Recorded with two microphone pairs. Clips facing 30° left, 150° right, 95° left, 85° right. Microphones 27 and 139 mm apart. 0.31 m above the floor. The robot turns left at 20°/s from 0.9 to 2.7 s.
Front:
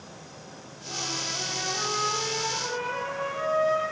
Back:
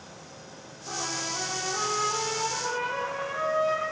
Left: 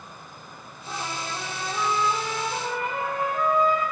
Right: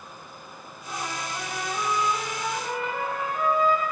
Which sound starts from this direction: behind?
A trumpet, at 0.9 s.